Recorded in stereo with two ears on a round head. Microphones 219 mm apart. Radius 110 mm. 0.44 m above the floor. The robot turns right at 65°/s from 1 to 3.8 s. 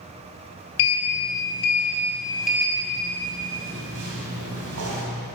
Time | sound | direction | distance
0.8 | a sliding door | 70° left (ahead or behind) | 3.5 m